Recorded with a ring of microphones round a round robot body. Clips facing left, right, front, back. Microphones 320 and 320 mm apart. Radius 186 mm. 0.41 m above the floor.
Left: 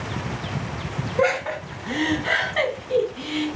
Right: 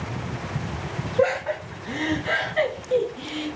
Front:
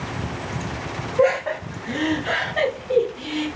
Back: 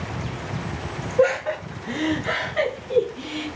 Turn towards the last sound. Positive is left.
turn(degrees=80)